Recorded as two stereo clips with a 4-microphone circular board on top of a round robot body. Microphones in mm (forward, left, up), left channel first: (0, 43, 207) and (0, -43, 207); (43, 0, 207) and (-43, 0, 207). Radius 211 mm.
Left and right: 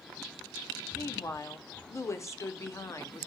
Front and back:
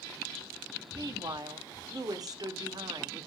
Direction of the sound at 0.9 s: 140° left.